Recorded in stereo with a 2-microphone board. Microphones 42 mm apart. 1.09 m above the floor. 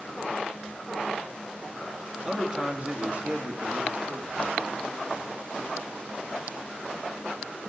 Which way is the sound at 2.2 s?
15° right (ahead or behind).